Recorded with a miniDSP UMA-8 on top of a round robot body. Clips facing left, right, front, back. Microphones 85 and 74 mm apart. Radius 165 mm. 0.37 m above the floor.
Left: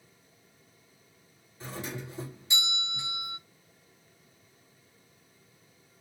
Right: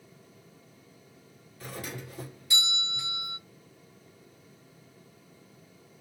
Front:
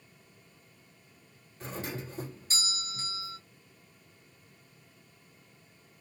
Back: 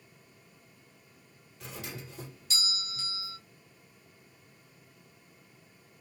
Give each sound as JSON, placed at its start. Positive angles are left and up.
{"t": 1.6, "sound": "a doorbell", "azimuth_deg": 35, "distance_m": 1.6}